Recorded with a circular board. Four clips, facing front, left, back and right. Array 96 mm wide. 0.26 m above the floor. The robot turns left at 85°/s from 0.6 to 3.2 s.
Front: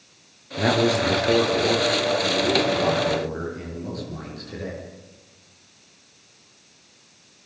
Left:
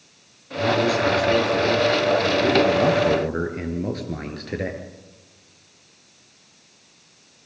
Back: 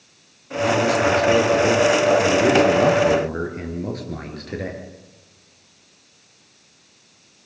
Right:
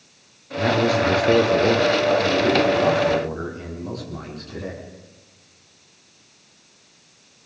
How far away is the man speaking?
About 5.5 m.